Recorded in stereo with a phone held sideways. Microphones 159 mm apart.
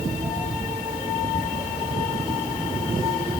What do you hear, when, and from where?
Only background noise.